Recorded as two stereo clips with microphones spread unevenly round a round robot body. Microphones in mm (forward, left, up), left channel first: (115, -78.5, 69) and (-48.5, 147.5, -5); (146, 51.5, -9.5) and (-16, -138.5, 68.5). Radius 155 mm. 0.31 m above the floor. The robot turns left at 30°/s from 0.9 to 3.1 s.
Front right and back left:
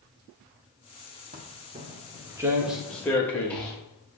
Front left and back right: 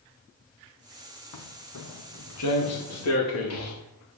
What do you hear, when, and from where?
1.3 s footsteps: 60° left, 3 m; by 3.8 s 30° left, 5.5 m